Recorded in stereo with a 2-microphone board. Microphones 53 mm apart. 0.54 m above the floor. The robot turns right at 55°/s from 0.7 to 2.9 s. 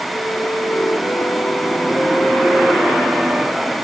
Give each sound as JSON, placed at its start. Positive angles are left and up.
{"t": 0.1, "sound": "a flute", "azimuth_deg": 85}